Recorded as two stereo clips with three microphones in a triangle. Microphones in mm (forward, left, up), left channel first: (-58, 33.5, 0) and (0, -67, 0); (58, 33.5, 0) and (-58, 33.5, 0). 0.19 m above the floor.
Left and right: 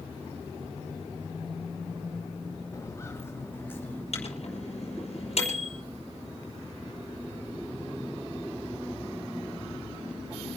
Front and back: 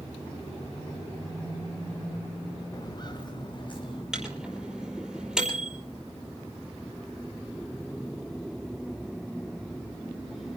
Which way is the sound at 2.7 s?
55° left.